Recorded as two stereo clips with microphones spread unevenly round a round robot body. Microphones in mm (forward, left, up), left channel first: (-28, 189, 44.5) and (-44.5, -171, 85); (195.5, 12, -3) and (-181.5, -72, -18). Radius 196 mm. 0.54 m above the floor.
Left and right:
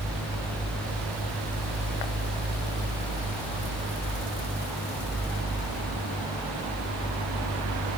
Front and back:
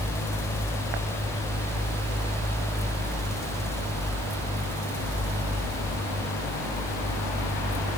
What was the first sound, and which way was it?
Only background noise.